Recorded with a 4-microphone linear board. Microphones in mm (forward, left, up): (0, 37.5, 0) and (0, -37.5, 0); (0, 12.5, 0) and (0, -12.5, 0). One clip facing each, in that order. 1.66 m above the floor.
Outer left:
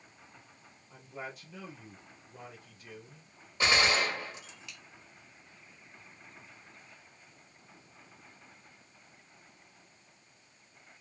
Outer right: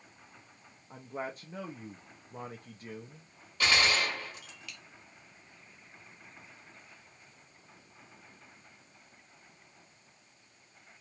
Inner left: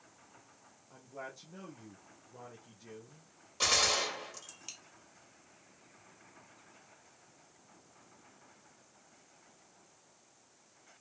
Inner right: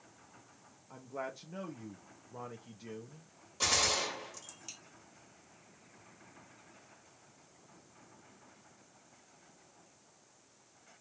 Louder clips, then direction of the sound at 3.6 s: Outer left 1 dB, inner left 2 dB; 20° left (ahead or behind).